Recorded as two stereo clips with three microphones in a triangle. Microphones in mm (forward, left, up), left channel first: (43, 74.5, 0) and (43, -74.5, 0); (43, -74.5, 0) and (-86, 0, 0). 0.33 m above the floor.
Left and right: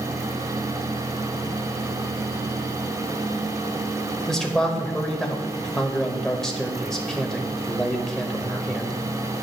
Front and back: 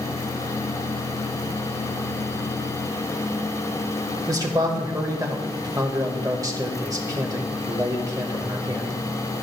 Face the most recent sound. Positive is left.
turn(degrees=170)